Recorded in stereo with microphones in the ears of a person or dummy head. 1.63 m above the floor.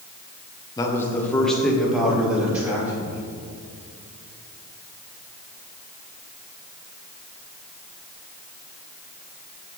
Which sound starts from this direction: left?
A man speaking, at 0.8 s.